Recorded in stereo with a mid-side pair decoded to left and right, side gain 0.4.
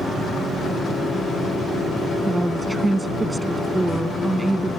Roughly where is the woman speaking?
Ahead.